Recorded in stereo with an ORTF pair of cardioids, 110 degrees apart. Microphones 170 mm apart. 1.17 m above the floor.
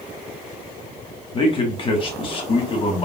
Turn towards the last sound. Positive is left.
turn(degrees=30)